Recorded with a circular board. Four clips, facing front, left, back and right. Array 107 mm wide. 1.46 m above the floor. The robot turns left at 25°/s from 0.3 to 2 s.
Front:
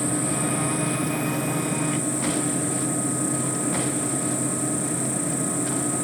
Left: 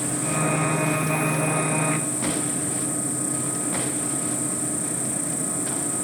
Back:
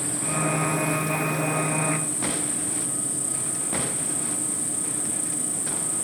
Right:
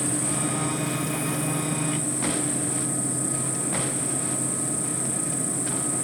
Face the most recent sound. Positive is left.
turn(degrees=45)